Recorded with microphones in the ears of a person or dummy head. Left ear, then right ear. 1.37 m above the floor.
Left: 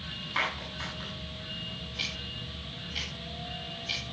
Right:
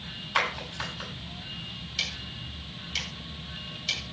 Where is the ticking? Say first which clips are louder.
Right 3 dB; 65° right (ahead or behind), 8.5 m.